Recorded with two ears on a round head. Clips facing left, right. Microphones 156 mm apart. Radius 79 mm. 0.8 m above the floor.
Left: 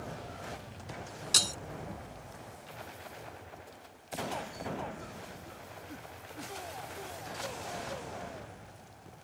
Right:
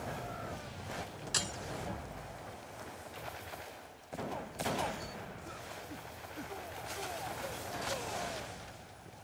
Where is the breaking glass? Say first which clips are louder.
Left 2 dB; 45° left (ahead or behind).